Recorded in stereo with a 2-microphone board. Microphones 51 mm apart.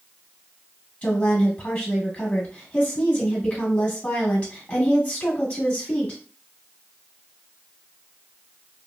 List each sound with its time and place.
1.0 s a woman speaking: 20° left (ahead or behind), 1.3 m